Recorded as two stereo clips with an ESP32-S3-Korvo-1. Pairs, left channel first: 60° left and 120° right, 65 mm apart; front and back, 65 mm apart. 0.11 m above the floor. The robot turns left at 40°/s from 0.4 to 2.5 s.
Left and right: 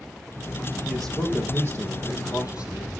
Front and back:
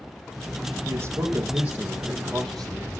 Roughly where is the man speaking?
Behind left.